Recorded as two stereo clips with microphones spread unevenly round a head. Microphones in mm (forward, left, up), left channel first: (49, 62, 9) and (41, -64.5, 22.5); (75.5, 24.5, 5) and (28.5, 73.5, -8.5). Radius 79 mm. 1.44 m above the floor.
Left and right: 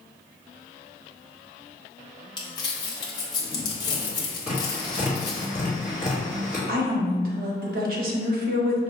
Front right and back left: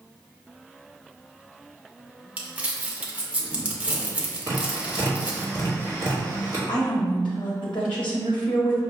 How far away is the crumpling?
About 0.8 m.